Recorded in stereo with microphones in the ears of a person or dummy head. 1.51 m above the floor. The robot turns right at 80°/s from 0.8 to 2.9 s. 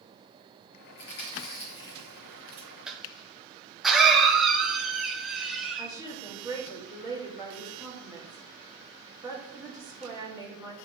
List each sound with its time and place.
1.0 s chewing: 60° left (ahead or behind), 2.5 m; by 2.8 s 40° right (ahead or behind), 2.5 m
2.9 s a cough: 5° right (ahead or behind), 1.3 m; by 5.9 s centre (ahead or behind), 1.3 m
5.8 s a woman speaking: 20° right (ahead or behind), 2.5 m